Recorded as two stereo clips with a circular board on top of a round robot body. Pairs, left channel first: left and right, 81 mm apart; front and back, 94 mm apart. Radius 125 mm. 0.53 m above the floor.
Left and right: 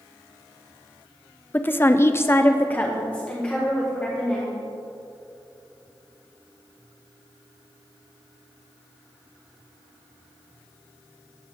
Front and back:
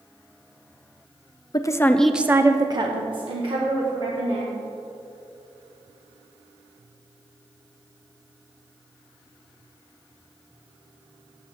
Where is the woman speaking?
30° left, 0.9 m; by 4.5 s 170° left, 2.5 m.